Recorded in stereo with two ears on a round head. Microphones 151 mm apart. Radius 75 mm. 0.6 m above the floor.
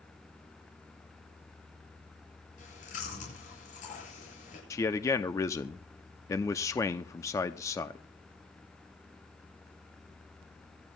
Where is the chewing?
50° left (ahead or behind), 8.5 m.